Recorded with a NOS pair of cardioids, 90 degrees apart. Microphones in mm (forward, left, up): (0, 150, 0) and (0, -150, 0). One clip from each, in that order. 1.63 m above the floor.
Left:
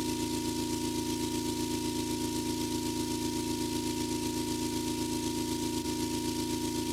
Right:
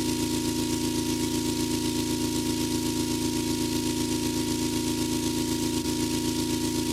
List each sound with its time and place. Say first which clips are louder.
0.0 s an engine running: right 5 dB; 45° right